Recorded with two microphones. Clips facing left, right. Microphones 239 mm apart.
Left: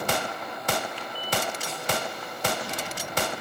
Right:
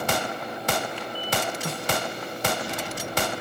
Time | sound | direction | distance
1.6 | a snare drum | 65° right (ahead or behind) | 1.4 m